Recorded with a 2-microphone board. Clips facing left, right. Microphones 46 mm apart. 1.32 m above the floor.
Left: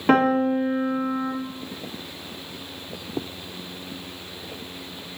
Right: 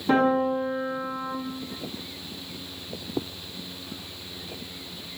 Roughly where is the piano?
Left.